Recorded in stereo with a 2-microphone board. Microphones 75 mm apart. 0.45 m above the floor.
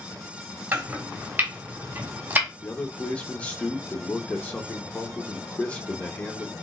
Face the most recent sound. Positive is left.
turn(degrees=20)  # may be behind; listen again after turning